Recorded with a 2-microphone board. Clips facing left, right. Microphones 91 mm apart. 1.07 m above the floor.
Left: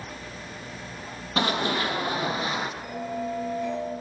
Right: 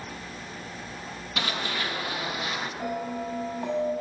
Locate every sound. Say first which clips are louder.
1.4 s running footsteps: left 6 dB; 35° left (ahead or behind), 1.3 m; by 2.7 s 30° left (ahead or behind), 1.8 m
2.8 s a bell: even; 65° right (ahead or behind), 6 m